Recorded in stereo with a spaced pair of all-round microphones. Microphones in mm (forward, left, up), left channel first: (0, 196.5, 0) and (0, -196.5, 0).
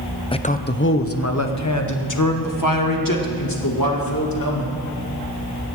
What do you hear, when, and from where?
0.3 s a man speaking: 10° left (ahead or behind), 0.8 m; by 4.7 s 60° left (ahead or behind), 3.5 m